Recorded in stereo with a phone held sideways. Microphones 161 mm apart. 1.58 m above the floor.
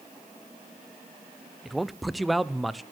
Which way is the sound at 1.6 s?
Centre (ahead or behind).